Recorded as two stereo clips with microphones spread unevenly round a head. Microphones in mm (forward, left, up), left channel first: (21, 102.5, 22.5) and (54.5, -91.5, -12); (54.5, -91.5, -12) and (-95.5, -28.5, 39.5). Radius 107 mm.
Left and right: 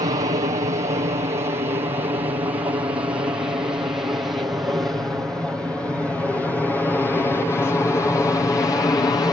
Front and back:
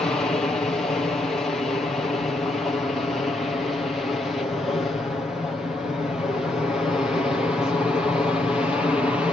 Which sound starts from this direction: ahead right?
An aircraft, at 0.0 s.